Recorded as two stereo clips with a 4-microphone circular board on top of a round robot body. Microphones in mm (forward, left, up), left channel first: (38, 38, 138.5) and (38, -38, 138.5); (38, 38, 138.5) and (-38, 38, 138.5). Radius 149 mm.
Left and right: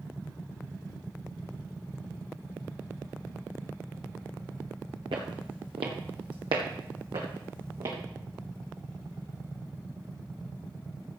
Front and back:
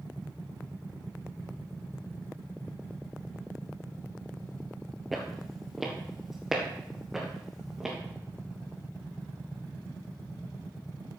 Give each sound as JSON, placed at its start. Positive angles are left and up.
{"t": 5.1, "sound": "footsteps", "azimuth_deg": -95, "distance_m": 0.8}